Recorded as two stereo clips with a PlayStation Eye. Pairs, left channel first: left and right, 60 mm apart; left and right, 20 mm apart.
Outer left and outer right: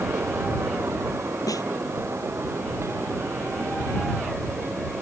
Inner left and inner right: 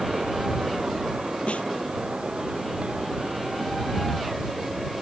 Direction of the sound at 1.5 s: 85° left.